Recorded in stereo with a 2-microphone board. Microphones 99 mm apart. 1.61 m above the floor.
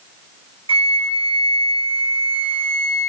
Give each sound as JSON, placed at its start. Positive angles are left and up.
{"t": 0.7, "sound": "a flute", "side_deg": -60, "distance_m": 1.3}